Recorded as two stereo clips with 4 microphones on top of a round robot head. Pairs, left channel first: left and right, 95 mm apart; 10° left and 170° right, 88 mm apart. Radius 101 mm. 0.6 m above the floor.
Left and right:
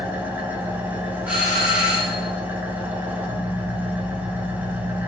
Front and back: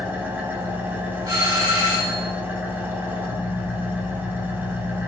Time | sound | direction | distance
0.0 | an engine running | 135° right | 0.8 m
1.3 | a doorbell | 160° right | 1.5 m